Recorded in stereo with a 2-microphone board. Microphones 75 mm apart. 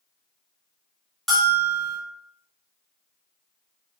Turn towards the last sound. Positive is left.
turn(degrees=0)  # may be behind; listen again after turning